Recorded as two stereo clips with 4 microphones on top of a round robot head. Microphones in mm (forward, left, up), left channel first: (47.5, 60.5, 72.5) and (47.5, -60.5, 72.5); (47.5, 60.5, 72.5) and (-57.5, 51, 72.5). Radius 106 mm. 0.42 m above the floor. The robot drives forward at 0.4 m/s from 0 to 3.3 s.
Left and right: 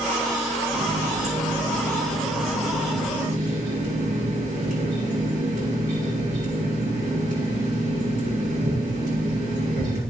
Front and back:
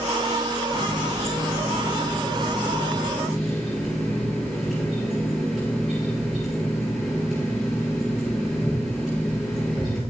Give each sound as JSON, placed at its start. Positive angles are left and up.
{"t": 0.7, "sound": "a running tap", "azimuth_deg": -75, "distance_m": 5.0}